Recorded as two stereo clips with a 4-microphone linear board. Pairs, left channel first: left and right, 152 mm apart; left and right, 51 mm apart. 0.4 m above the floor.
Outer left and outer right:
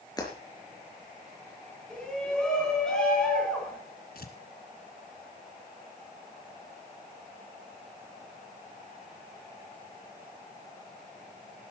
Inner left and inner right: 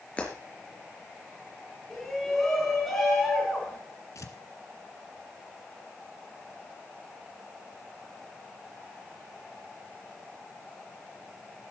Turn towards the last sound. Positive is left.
turn(degrees=80)